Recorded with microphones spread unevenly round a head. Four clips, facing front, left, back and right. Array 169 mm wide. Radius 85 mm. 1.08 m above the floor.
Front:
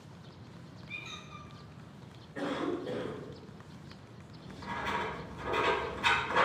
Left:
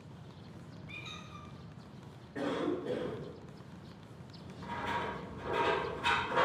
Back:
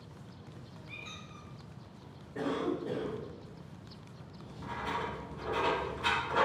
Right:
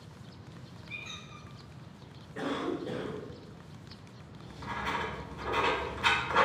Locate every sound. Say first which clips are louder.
0.9 s a squeak: right 2 dB, front 3 dB; 120° left, 1.5 m
2.4 s a cough: even, back 1 dB; 145° left, 1.5 m
4.4 s writing: right 2 dB, front 2 dB; 85° right, 1.1 m